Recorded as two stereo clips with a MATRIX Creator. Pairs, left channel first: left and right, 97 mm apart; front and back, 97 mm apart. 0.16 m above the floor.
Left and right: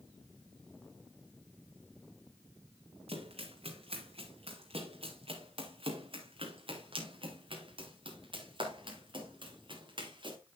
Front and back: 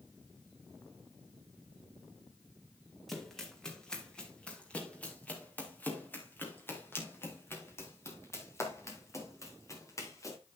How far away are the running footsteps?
About 4.5 m.